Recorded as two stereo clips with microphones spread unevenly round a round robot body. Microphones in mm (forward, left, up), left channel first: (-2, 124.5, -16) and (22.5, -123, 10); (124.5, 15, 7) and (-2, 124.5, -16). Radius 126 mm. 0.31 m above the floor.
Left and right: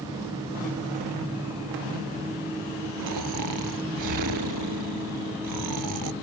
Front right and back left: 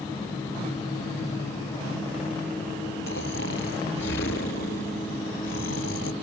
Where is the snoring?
75° right.